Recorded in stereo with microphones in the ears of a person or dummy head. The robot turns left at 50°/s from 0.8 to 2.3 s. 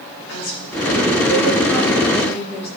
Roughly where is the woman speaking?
Left.